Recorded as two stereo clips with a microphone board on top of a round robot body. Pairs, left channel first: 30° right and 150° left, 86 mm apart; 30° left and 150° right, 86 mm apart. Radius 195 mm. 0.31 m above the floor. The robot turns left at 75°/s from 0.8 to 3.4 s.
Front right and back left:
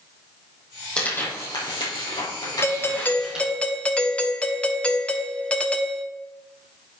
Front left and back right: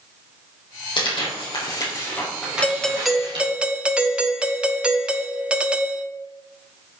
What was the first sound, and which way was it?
Tearing paper, 50° left.